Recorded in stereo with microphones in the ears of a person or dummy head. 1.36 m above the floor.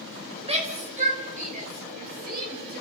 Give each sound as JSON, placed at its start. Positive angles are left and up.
{"t": 0.4, "sound": "a shout", "side_deg": -35, "distance_m": 5.5}